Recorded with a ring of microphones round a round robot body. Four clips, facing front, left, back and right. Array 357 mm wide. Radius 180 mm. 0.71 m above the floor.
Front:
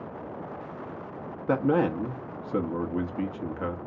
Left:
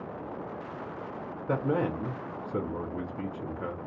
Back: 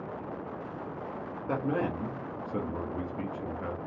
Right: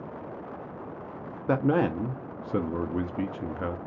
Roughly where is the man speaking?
Ahead right.